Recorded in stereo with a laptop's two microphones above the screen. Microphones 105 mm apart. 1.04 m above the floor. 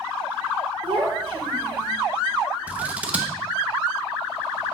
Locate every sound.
0.8 s a child speaking: 65° right (ahead or behind), 3 m
2.7 s scissors: 15° right (ahead or behind), 0.5 m